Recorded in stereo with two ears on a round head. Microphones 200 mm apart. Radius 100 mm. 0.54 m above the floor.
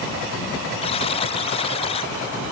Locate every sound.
0.8 s a buzzer: 25° left (ahead or behind)